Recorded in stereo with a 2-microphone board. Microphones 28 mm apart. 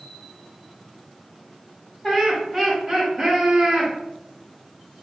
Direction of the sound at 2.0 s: 20° left (ahead or behind).